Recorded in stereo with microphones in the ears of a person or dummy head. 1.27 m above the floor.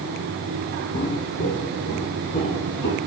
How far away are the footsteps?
About 1.7 m.